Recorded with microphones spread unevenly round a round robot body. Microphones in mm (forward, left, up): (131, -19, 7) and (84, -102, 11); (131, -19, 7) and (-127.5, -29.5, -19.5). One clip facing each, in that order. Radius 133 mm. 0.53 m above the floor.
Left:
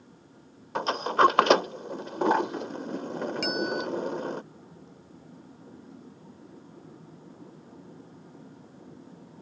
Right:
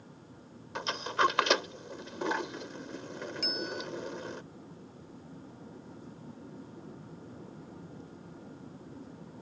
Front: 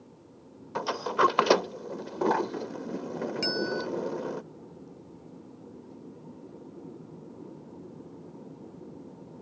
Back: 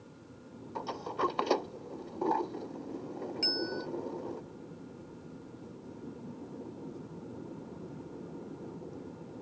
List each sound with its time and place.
0.8 s a sliding door: 15° left
3.4 s a bell: 40° left